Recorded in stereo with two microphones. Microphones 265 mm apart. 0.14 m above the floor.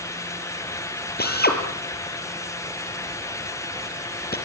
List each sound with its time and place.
1.2 s a drill: 35° left (ahead or behind), 3.5 m